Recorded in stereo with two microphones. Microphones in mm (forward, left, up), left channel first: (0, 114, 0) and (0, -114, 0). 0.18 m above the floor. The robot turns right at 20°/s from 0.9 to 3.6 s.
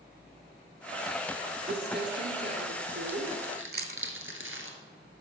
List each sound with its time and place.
1.7 s crumpling: 45° right (ahead or behind), 1.3 m; by 4.7 s 70° right (ahead or behind), 1.3 m
3.7 s chewing: 45° right (ahead or behind), 0.5 m